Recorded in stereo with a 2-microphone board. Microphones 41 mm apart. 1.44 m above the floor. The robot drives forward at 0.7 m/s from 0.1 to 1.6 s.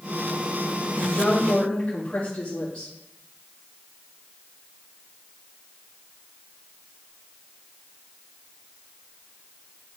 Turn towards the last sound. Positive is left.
turn(degrees=25)  # may be behind; listen again after turning